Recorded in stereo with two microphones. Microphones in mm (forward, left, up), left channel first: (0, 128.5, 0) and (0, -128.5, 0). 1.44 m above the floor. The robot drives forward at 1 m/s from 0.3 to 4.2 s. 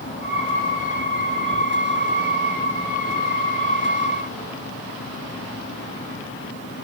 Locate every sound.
Only background noise.